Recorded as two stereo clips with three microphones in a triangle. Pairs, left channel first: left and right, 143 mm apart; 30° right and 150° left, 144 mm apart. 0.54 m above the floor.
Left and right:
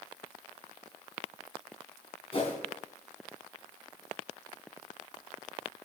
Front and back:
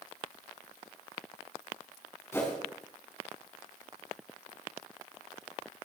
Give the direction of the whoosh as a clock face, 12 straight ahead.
11 o'clock.